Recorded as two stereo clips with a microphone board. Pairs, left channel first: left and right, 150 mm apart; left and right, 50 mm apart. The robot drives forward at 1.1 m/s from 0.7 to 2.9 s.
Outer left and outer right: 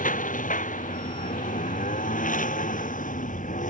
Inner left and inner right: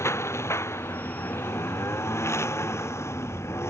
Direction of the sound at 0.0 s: 65° left (ahead or behind).